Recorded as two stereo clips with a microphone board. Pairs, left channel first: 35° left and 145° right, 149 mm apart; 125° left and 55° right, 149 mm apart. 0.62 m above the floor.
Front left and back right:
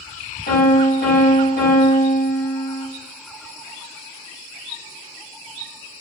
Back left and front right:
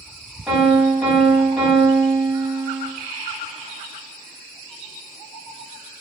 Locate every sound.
0.5 s a piano: 30° left, 2 m